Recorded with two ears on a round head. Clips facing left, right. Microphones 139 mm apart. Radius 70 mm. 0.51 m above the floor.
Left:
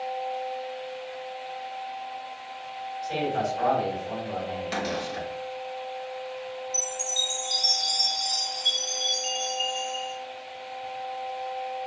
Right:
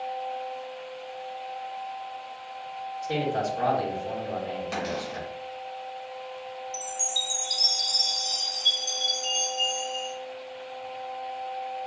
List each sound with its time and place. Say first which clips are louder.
3.0 s a man speaking: even; 65° right (ahead or behind), 2 m
4.7 s a cupboard door: left 1 dB; 5° left (ahead or behind), 1.1 m
6.7 s a chime: left 1 dB; 45° right (ahead or behind), 1.2 m